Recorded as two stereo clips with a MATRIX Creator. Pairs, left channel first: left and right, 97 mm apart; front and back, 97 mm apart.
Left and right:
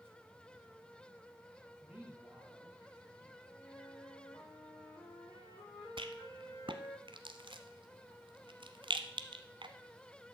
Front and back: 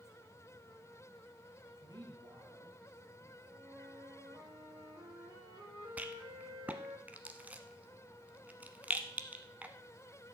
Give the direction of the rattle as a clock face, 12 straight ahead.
4 o'clock.